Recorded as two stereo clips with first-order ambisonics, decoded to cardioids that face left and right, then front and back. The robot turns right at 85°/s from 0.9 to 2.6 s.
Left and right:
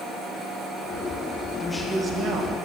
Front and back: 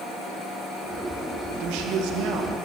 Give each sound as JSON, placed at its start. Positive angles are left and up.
{"t": 1.6, "sound": "a man speaking", "azimuth_deg": 160, "distance_m": 1.4}